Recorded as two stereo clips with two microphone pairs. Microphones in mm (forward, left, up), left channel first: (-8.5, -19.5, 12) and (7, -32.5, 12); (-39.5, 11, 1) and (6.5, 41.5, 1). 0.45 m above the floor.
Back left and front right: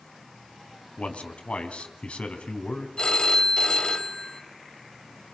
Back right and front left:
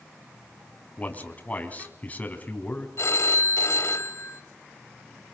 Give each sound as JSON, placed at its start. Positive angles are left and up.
{"t": 1.0, "sound": "a man speaking", "azimuth_deg": 155, "distance_m": 3.5}
{"t": 3.0, "sound": "a phone ringing", "azimuth_deg": -170, "distance_m": 1.9}